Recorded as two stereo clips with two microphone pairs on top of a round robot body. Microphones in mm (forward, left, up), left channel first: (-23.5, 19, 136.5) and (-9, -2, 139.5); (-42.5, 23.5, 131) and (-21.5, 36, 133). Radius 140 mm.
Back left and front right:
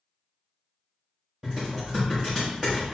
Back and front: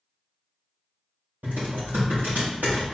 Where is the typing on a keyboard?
5° left, 0.7 m.